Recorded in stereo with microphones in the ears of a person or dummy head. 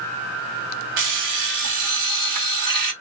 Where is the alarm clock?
45° right (ahead or behind), 1.3 m.